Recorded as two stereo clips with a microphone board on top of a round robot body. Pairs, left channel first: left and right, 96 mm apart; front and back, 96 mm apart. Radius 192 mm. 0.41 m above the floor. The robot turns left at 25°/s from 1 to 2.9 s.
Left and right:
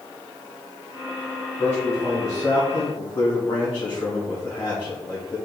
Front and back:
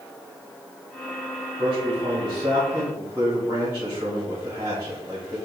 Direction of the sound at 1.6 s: 160° left.